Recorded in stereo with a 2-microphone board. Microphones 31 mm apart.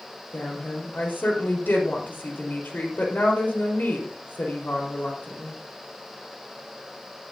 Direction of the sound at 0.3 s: 75° left (ahead or behind).